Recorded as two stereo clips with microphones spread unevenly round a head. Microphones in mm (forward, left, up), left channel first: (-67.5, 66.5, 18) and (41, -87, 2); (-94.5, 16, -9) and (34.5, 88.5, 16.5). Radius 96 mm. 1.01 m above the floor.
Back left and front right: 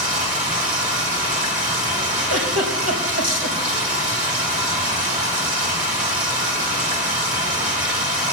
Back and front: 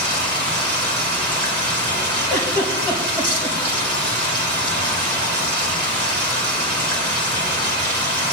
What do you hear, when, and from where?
0.0 s running water: 5° right, 4.5 m
2.3 s a giggle: 50° right, 4 m